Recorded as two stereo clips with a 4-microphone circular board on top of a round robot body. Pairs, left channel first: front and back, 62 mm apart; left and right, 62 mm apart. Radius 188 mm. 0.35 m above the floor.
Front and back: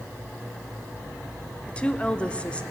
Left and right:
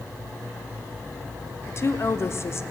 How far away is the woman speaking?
About 1.4 m.